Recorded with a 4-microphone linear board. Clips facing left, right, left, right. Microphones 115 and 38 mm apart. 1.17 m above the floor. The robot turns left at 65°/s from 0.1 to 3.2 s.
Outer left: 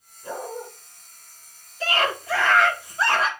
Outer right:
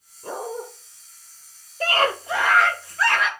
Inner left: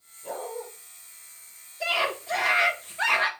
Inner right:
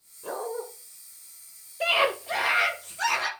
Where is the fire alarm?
No fire alarm in this recording.